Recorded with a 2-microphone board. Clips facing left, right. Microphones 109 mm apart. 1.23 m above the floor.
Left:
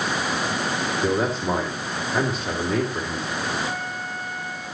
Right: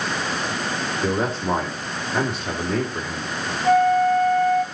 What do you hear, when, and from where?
1.0 s a man speaking: centre (ahead or behind), 3 m
3.6 s a flute: 55° right (ahead or behind), 2 m